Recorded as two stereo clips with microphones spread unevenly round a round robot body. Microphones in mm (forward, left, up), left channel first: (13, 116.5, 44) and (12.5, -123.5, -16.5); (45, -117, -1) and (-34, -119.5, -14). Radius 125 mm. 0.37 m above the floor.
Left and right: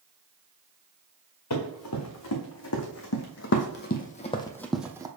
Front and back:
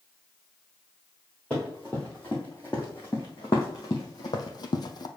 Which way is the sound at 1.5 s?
85° left.